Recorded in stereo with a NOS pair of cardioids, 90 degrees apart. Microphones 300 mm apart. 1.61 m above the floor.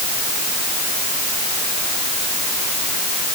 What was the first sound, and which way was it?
Only background noise.